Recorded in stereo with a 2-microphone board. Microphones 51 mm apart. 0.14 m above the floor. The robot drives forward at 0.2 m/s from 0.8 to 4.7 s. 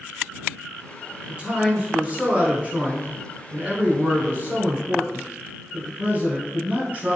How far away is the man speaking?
About 1.6 m.